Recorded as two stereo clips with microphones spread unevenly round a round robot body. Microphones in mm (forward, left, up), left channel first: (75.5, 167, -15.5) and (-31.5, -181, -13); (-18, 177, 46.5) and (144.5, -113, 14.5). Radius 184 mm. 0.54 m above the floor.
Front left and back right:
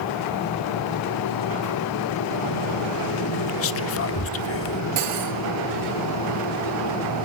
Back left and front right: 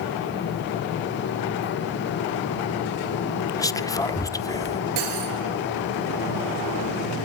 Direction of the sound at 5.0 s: 60° right.